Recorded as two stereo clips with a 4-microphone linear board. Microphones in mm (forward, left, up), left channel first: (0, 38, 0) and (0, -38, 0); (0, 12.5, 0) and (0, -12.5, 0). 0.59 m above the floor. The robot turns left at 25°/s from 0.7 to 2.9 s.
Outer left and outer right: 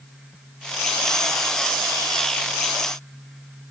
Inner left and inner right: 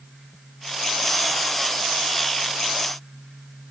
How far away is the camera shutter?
No camera shutter in this recording.